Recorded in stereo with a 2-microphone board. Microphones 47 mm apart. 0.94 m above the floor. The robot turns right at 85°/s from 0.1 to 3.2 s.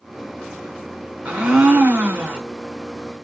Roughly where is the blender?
Behind right.